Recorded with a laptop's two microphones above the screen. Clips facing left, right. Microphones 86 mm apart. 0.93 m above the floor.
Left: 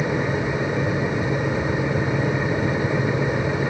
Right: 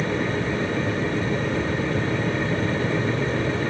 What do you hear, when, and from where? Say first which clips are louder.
0.0 s a fan: left 1 dB; 15° left (ahead or behind), 1.2 m